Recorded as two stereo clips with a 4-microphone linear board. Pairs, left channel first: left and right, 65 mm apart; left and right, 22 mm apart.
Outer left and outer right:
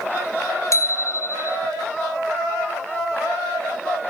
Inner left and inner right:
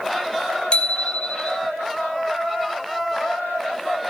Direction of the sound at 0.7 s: 50° left (ahead or behind).